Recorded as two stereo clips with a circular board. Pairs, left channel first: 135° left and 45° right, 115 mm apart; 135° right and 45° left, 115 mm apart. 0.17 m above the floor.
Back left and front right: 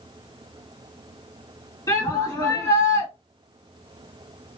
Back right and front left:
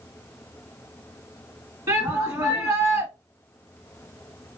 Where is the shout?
95° left, 1.8 m.